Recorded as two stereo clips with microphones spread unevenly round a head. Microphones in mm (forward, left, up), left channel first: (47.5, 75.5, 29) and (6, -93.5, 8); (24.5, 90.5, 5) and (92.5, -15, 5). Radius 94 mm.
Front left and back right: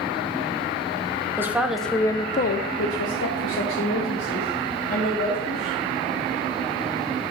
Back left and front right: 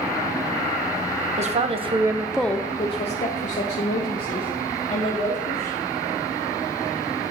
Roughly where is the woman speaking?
Ahead right.